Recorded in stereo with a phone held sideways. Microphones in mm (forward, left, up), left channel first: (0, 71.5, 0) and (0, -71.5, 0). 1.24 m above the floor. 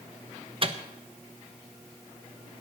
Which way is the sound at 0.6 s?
40° right (ahead or behind).